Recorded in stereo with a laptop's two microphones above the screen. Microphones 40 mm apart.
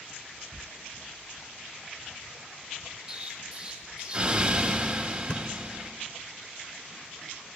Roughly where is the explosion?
Centre.